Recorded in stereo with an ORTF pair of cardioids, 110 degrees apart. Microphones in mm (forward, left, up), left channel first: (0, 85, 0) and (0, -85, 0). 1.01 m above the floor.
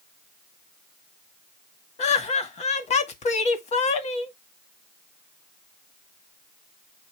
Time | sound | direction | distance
2.0 | laughter | 45° left | 1.8 m